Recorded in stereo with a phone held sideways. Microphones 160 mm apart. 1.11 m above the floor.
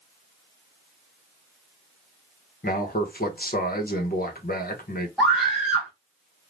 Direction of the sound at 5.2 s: Centre (ahead or behind).